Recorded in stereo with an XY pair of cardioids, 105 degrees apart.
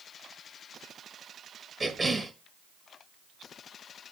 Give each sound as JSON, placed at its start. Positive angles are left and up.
{"t": 1.8, "sound": "a cough", "azimuth_deg": -25, "distance_m": 1.5}